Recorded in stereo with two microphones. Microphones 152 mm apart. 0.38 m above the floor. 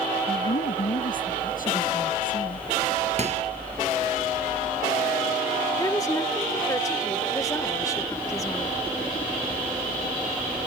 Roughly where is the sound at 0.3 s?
Left.